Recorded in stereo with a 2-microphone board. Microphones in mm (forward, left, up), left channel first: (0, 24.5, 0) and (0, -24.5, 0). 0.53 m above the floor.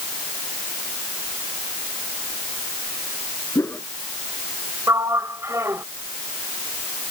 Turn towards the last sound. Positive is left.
turn(degrees=-65)  # may be behind; listen again after turning